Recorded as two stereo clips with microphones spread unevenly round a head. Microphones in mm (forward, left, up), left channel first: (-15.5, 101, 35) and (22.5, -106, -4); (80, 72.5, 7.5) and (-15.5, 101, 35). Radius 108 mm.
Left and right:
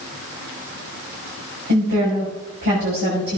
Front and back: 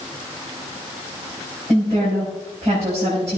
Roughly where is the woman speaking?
Behind right.